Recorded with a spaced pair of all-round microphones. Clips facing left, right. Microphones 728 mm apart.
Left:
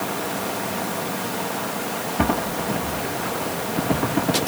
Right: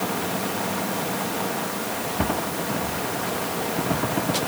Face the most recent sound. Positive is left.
No sound to turn to.